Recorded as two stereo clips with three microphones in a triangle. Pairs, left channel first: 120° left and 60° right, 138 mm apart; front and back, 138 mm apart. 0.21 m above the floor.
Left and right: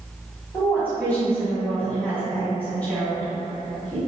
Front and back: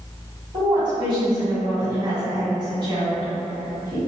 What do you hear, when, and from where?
0.5 s a woman speaking: 170° right, 1.9 m